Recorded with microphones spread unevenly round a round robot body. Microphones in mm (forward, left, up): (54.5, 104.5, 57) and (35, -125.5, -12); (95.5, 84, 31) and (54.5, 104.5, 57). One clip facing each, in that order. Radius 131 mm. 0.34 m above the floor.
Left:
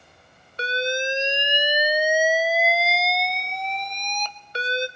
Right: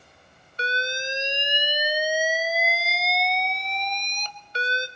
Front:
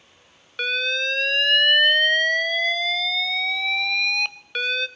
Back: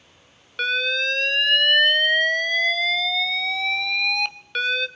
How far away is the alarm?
About 1.0 m.